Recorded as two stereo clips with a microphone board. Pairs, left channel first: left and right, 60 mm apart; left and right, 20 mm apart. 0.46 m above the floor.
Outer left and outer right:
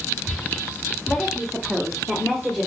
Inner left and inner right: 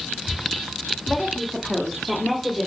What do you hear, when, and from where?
1.1 s a woman speaking: 5° left (ahead or behind), 1.7 m